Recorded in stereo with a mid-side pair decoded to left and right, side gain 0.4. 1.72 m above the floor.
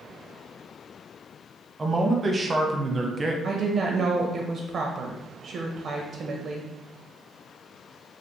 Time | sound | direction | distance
1.8 | a man speaking | 35° right | 0.7 m
3.4 | a woman speaking | 55° right | 0.6 m